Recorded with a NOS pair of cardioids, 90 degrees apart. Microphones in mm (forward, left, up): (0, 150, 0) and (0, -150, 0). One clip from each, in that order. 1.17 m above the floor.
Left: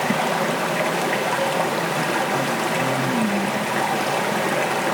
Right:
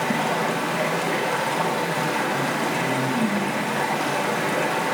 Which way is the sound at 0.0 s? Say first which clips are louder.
Left 2 dB; 40° left.